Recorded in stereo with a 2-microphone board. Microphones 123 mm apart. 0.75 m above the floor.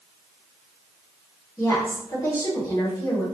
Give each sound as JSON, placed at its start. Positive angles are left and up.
{"t": 1.6, "sound": "a woman speaking", "side_deg": 35, "distance_m": 2.0}